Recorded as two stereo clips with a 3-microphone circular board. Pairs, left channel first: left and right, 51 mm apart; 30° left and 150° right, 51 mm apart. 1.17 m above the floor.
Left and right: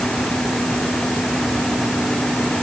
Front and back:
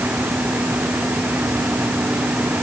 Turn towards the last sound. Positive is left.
No sound to turn to.